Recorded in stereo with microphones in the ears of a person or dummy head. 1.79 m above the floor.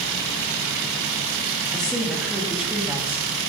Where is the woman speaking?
5° left (ahead or behind), 3 m; by 3.3 s 15° right (ahead or behind), 2.5 m.